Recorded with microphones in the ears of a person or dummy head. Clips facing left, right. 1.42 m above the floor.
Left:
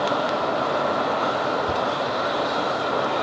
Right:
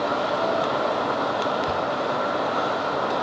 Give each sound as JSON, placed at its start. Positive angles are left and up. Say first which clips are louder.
{"t": 1.7, "sound": "a thud", "louder": "left 1 dB", "side_deg": -30, "distance_m": 2.5}